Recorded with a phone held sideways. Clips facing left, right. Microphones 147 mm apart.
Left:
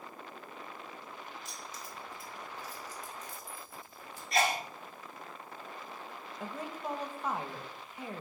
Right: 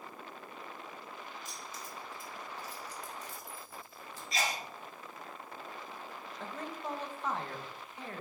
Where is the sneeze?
60° left (ahead or behind), 0.9 m.